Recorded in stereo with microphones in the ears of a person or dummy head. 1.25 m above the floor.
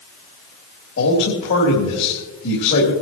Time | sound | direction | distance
1.0 | a man speaking | 70° left (ahead or behind) | 3.5 m